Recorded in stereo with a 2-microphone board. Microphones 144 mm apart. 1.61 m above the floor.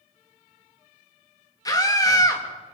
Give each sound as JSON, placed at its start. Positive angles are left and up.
{"t": 1.6, "sound": "a scream", "side_deg": 25, "distance_m": 3.0}